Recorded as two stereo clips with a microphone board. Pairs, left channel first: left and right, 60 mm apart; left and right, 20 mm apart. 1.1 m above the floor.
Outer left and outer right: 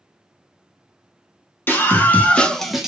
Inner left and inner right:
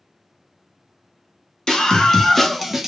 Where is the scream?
35° left (ahead or behind), 0.8 m; by 2.9 s 10° right (ahead or behind), 0.5 m.